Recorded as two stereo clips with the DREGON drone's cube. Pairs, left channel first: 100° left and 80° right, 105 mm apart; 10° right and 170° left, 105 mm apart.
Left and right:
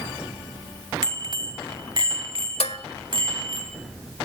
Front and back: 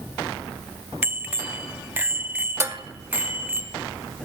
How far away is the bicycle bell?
About 2 m.